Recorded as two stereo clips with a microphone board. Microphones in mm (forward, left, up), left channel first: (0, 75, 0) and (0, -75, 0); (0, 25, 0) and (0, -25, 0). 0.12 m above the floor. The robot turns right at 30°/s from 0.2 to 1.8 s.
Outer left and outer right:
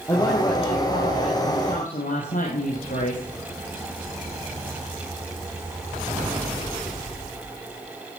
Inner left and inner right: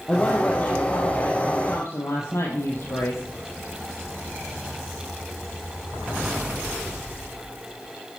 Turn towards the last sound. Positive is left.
turn(degrees=70)